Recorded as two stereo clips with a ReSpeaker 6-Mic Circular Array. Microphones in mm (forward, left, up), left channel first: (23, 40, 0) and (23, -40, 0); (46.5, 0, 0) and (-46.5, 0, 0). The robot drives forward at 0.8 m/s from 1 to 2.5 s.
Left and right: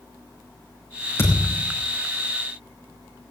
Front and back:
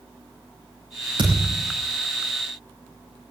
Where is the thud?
145° left, 6.5 m; by 1.7 s 150° left, 7 m.